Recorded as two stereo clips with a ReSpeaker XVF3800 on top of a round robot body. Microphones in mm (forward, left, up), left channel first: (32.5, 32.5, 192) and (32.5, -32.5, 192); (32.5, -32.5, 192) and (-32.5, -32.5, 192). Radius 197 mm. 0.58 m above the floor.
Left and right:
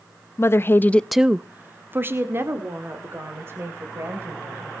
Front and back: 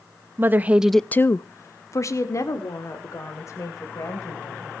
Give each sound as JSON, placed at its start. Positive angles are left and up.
{"t": 0.4, "sound": "a woman speaking", "azimuth_deg": 130, "distance_m": 1.0}